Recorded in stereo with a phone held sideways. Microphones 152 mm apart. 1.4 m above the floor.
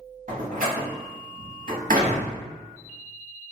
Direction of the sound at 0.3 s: 60° right (ahead or behind).